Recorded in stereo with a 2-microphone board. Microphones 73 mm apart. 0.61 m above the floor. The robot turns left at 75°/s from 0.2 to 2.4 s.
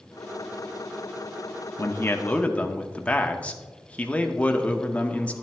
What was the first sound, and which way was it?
A man speaking, 75° left.